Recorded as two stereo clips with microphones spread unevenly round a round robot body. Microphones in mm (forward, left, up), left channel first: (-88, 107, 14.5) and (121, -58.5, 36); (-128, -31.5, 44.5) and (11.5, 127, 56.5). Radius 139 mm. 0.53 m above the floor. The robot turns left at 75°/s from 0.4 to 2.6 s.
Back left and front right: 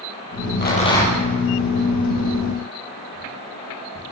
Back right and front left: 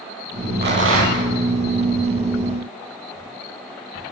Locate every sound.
0.6 s a rattle: 90° left, 8 m; by 1.2 s 45° left, 8 m